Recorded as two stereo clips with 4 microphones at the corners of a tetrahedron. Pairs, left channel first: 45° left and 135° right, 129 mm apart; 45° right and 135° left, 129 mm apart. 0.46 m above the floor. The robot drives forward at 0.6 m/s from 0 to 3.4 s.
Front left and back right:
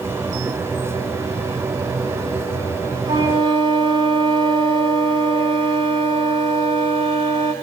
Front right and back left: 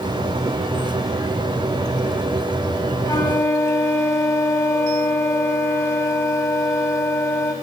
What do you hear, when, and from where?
3.0 s a flute: 95° right, 1.7 m; by 7.5 s 105° right, 1.7 m